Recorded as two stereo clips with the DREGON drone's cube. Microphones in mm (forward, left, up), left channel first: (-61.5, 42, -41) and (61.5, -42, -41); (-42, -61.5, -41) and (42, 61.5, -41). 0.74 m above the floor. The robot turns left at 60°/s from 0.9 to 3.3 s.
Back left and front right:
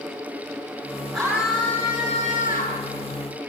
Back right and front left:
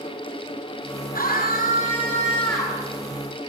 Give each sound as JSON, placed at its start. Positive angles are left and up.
{"t": 1.1, "sound": "a scream", "azimuth_deg": -110, "distance_m": 8.0}